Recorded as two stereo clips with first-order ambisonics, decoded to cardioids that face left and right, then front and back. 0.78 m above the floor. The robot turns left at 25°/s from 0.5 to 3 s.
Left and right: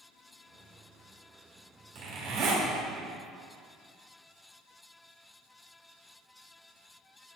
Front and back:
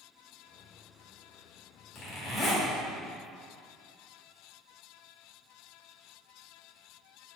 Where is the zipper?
45° right, 1.7 m; by 2.6 s 60° right, 1.7 m.